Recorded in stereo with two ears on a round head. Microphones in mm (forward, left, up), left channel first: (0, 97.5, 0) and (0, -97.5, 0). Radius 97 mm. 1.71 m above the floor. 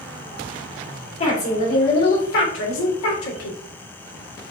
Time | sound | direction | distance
1.2 | a woman speaking | 35° left (ahead or behind) | 3 m